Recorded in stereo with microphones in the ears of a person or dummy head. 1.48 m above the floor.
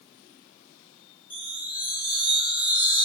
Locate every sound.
1.3 s a chime: 25° left (ahead or behind), 3.5 m